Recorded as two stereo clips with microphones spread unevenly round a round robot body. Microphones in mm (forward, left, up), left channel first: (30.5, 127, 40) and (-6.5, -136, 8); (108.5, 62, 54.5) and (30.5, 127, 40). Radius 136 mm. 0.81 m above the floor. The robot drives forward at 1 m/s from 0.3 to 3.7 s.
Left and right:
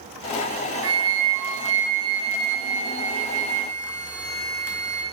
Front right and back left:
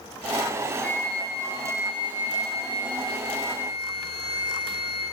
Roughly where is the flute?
Behind right.